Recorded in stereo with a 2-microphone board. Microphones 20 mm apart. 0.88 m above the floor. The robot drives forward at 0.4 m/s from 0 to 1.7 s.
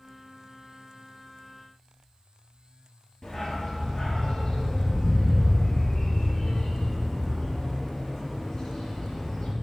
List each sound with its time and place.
3.2 s a dog barking: 20° left (ahead or behind), 5 m